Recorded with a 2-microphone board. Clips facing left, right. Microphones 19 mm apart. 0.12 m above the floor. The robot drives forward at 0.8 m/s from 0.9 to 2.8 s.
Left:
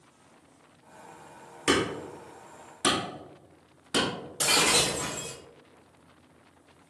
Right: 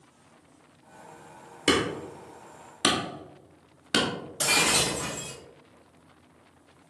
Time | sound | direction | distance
1.7 | hammering | 40° right (ahead or behind) | 1.3 m
4.4 | breaking glass | 15° left (ahead or behind) | 1.3 m